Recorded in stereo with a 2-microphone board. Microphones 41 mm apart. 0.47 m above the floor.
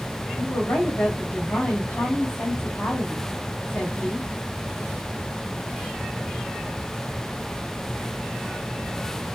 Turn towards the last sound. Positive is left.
turn(degrees=65)  # may be behind; listen again after turning